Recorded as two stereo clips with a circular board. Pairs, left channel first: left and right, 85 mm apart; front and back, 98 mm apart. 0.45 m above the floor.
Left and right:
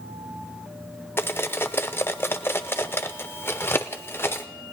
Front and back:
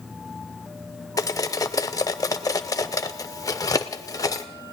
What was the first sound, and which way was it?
Cutlery clinking, 35° left.